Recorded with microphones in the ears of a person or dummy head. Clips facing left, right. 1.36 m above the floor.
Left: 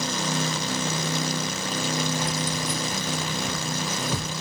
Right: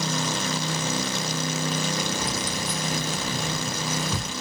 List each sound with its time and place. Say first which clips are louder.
2.2 s keys jangling: left 1 dB; 70° right (ahead or behind), 1.7 m; by 4.3 s 5° left (ahead or behind), 1.6 m